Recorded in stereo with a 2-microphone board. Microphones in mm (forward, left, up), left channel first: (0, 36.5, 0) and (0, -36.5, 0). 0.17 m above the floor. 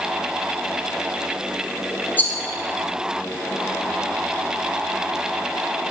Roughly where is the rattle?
Left.